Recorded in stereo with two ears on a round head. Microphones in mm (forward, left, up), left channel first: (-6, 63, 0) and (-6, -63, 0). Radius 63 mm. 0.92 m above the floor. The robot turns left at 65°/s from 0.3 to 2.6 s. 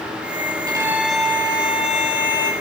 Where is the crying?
No crying in this recording.